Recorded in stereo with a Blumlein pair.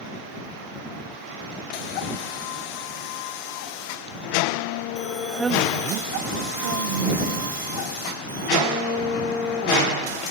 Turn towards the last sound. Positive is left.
turn(degrees=-70)